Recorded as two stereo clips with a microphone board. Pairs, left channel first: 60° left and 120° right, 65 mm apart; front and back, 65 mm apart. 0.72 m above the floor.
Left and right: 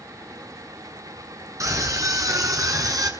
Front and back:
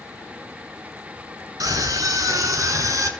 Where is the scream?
155° right, 8 m; by 3.1 s 145° right, 6.5 m.